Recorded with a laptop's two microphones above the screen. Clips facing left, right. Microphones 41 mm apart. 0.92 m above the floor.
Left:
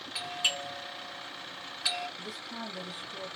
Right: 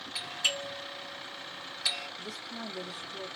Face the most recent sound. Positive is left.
turn(degrees=20)  # may be behind; listen again after turning